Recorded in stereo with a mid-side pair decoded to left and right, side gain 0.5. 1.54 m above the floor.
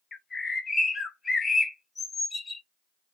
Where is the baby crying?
No baby crying in this recording.